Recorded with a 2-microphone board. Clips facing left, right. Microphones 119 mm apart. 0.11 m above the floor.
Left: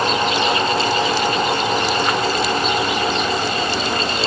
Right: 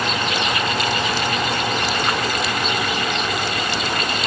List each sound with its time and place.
Only background noise.